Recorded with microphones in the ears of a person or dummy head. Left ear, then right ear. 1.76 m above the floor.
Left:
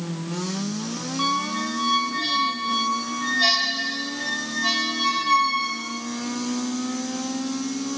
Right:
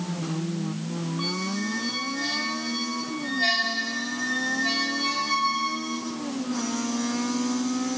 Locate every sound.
1.2 s a squeak: 45° left (ahead or behind), 3.5 m